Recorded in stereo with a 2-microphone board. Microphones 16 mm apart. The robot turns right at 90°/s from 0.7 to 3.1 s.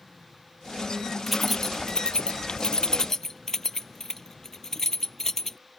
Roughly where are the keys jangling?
Centre.